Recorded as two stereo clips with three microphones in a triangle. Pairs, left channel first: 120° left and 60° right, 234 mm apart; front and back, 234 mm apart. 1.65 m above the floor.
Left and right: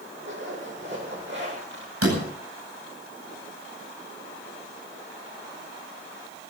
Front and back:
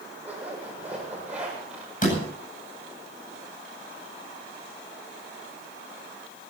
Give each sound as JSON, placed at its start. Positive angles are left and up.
{"t": 0.2, "sound": "a zipper", "azimuth_deg": -95, "distance_m": 7.5}
{"t": 2.0, "sound": "a door slam", "azimuth_deg": -55, "distance_m": 9.0}